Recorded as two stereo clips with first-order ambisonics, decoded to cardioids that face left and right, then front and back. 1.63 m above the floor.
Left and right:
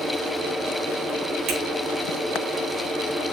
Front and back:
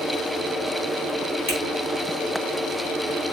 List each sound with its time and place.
1.5 s a finger snap: 55° right, 3.5 m